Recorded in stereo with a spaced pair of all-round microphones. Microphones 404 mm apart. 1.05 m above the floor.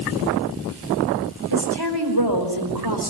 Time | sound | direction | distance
1.5 | a woman speaking | 70° right (ahead or behind) | 5 m